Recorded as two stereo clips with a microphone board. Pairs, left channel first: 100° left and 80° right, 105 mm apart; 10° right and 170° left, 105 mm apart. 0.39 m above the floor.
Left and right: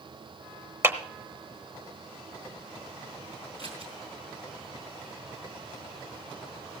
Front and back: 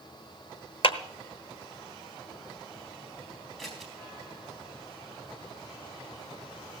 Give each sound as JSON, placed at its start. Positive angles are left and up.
{"t": 0.8, "sound": "a clap", "azimuth_deg": -20, "distance_m": 1.0}
{"t": 3.6, "sound": "scissors", "azimuth_deg": -100, "distance_m": 4.0}